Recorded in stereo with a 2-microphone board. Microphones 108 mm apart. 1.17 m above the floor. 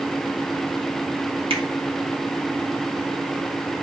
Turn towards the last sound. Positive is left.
turn(degrees=-55)  # may be behind; listen again after turning